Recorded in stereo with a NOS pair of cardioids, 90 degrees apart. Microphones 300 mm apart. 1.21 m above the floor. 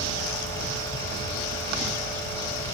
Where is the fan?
10° left, 1.1 m.